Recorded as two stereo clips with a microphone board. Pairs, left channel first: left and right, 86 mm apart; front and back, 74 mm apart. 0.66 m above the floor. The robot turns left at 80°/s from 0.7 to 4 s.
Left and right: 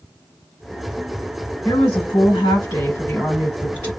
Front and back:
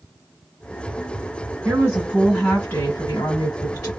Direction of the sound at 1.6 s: 140° left.